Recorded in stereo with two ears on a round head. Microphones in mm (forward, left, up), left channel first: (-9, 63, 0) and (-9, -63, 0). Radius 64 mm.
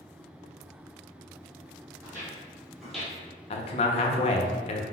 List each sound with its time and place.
2.0 s footsteps: 20° right (ahead or behind), 2.0 m; by 3.2 s 10° left (ahead or behind), 1.4 m
3.5 s a man speaking: 40° left (ahead or behind), 0.6 m